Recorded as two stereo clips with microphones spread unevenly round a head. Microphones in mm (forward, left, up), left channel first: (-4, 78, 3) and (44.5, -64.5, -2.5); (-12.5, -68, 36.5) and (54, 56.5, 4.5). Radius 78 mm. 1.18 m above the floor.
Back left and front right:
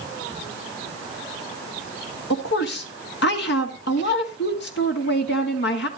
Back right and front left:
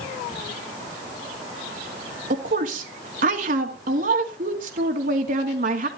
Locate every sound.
2.3 s a woman speaking: 95° left, 2 m